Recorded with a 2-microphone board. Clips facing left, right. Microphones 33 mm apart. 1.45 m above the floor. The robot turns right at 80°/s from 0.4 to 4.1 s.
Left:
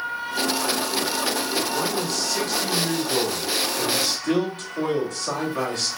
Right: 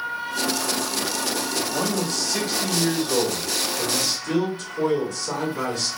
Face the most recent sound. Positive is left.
turn(degrees=70)